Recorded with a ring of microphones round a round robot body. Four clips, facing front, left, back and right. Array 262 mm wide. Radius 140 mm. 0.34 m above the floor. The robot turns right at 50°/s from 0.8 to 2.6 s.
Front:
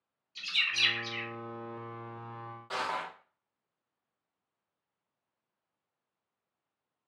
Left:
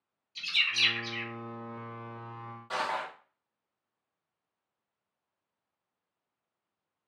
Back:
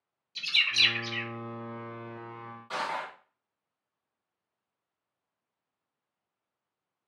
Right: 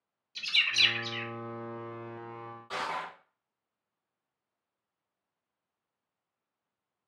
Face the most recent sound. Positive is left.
turn(degrees=45)